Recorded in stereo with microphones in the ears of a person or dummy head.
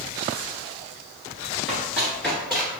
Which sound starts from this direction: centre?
Running footsteps, at 1.7 s.